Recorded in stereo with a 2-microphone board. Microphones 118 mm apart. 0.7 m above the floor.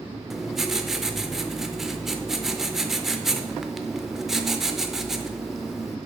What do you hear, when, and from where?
0.3 s writing: 5° right (ahead or behind), 0.5 m